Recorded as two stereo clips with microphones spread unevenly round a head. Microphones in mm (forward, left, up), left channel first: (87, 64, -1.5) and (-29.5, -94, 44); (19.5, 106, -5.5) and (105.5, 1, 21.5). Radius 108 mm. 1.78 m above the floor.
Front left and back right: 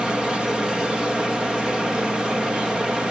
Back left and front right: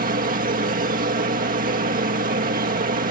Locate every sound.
0.0 s a machine running: 40° right